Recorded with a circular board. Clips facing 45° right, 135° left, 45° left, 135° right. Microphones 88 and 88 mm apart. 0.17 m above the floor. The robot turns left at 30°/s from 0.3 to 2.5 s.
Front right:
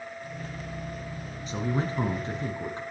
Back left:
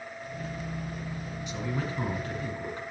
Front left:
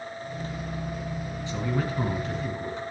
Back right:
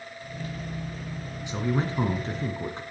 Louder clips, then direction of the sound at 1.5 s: Front right 5 dB, back right 2 dB; 70° right.